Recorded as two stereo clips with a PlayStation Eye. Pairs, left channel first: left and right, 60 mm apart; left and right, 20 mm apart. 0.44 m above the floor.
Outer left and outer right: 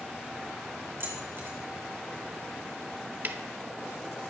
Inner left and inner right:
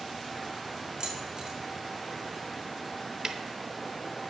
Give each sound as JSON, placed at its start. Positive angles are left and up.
{"t": 1.0, "sound": "keys jangling", "side_deg": -40, "distance_m": 3.0}
{"t": 3.2, "sound": "ticking", "side_deg": -35, "distance_m": 0.6}